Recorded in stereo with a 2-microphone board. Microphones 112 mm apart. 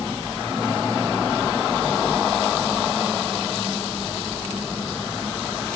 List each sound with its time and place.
Only background noise.